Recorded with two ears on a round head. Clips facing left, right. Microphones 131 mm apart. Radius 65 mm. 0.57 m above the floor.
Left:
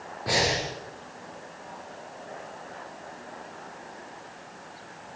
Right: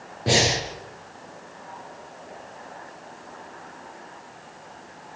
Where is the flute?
No flute in this recording.